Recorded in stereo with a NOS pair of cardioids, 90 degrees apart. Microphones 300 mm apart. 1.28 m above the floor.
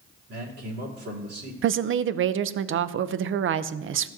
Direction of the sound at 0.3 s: 50° right.